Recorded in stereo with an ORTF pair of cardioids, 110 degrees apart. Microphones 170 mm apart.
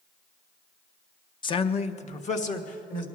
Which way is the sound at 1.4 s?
30° left.